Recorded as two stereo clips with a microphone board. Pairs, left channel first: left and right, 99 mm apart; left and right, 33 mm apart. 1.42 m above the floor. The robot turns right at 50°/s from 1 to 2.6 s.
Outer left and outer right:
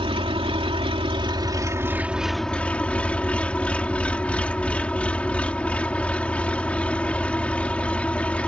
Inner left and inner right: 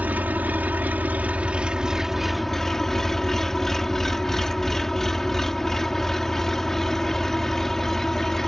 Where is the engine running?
70° right; by 8.5 s 10° left.